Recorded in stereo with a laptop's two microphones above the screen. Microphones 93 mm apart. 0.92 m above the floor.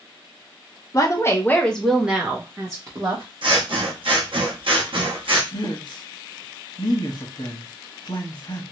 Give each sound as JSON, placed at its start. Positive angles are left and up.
{"t": 0.9, "sound": "a woman speaking", "side_deg": 40, "distance_m": 0.9}
{"t": 3.4, "sound": "scissors", "side_deg": -65, "distance_m": 0.8}
{"t": 5.5, "sound": "a man speaking", "side_deg": 55, "distance_m": 1.1}